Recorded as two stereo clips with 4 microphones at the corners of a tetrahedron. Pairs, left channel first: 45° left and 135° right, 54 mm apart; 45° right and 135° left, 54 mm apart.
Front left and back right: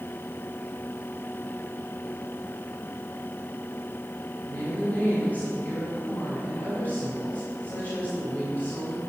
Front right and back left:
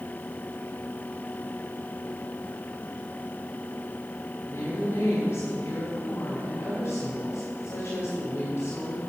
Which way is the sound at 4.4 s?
Straight ahead.